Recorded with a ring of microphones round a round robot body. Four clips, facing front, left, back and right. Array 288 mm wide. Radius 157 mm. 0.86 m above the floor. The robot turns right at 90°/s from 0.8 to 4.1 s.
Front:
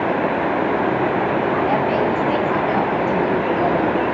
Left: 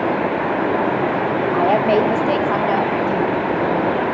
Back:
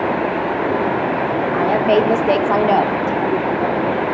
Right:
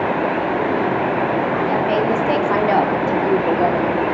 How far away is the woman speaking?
About 2.5 m.